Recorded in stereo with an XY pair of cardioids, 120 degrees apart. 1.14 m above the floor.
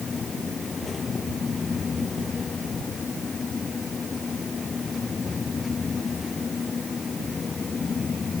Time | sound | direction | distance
0.0 | a fan | 25° left | ?